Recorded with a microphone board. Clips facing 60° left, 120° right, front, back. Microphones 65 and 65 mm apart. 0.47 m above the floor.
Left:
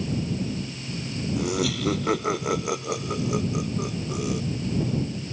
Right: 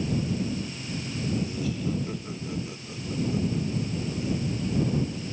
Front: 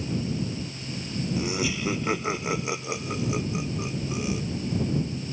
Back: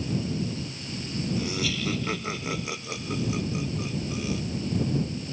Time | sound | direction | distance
1.4 | laughter | 70° left | ?